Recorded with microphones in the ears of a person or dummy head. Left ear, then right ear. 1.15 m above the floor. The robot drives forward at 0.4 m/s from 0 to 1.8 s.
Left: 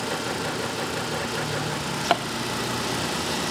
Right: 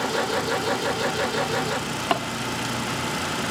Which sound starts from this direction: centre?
A drawer, at 1.6 s.